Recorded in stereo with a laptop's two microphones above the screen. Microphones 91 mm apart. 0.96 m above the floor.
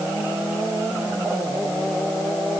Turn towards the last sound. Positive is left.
No sound to turn to.